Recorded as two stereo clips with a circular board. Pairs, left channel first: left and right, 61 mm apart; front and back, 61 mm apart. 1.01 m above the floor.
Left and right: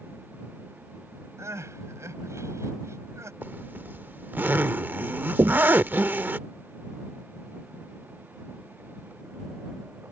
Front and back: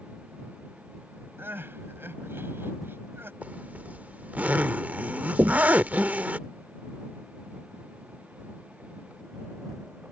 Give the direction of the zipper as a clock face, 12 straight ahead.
4 o'clock.